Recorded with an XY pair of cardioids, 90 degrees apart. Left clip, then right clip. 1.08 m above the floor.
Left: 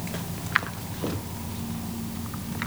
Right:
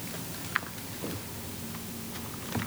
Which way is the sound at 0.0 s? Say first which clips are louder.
Left 4 dB; 65° left.